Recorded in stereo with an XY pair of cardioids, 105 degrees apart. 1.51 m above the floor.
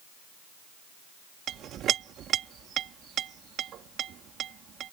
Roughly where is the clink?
Right.